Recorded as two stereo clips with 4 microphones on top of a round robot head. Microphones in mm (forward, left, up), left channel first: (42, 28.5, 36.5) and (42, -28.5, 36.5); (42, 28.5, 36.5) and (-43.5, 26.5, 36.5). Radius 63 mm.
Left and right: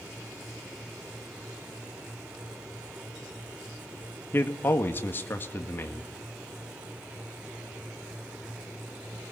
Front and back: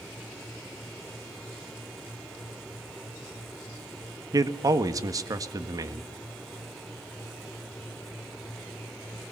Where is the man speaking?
145° left, 1.7 m.